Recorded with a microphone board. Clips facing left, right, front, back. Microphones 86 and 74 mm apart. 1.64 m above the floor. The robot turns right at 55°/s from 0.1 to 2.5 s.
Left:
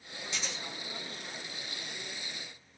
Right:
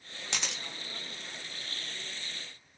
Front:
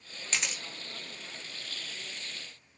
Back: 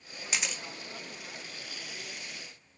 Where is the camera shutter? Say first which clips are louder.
Right 2 dB, even; 100° right, 0.5 m; by 0.6 s 80° right, 0.5 m.